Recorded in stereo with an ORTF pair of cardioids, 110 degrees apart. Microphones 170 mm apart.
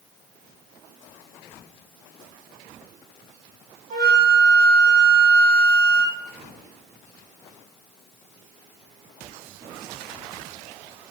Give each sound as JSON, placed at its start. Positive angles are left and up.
{"t": 3.9, "sound": "a flute", "azimuth_deg": -45, "distance_m": 0.9}